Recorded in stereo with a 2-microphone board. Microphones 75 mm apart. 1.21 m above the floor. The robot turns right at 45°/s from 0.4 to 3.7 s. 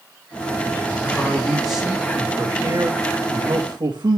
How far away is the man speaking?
About 2 m.